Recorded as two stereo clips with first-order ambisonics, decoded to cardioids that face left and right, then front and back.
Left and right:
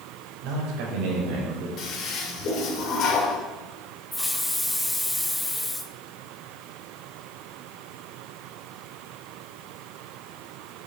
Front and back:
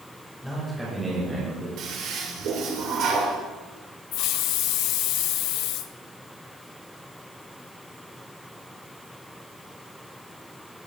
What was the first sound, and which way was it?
A man speaking, 85° right.